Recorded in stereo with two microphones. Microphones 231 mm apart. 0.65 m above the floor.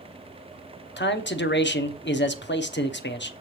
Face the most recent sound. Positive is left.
turn(degrees=55)  # may be behind; listen again after turning